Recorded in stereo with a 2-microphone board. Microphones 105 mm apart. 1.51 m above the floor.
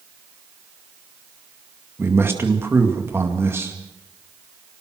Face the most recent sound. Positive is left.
turn(degrees=-25)  # may be behind; listen again after turning